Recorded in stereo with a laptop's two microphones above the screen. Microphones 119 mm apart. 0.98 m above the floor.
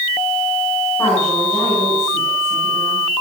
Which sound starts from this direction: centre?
A woman speaking, at 1.0 s.